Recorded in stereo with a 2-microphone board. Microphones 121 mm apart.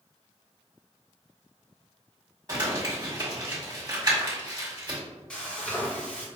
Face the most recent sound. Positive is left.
turn(degrees=10)  # may be behind; listen again after turning